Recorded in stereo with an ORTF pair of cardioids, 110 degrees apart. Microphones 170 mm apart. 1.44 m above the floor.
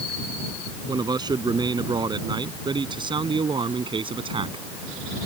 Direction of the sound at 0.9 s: 25° right.